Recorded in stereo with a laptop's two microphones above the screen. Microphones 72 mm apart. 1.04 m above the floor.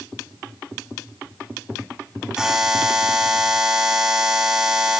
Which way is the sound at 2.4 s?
10° right (ahead or behind).